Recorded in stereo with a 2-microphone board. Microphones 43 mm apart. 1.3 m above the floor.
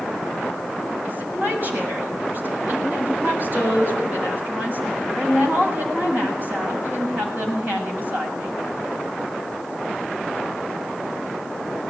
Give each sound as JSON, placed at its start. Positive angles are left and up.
{"t": 1.1, "sound": "a woman speaking", "side_deg": -40, "distance_m": 7.5}